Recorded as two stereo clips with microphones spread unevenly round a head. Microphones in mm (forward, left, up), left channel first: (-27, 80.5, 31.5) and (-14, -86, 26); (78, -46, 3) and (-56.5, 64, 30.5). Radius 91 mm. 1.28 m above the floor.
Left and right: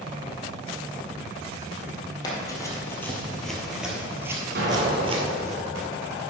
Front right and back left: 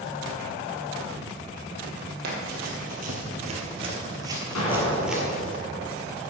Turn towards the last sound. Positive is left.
turn(degrees=-45)